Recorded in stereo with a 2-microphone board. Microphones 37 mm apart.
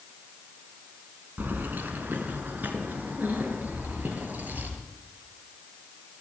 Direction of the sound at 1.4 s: 60° right (ahead or behind).